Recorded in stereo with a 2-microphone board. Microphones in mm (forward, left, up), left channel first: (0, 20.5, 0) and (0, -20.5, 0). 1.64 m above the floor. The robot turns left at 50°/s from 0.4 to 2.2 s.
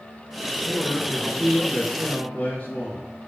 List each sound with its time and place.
0.7 s a man speaking: 125° left, 2.5 m; by 3.1 s 45° left, 2.5 m